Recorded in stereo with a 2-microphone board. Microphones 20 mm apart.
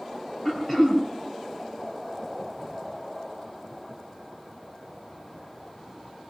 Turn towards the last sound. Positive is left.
turn(degrees=15)  # may be behind; listen again after turning